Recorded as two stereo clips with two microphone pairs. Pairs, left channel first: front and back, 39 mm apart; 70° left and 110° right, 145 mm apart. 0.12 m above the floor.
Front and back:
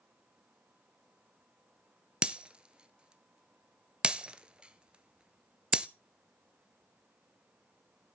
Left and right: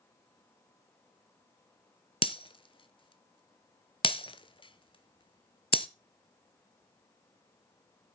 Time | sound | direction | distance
2.2 | breaking glass | 115° left | 0.6 m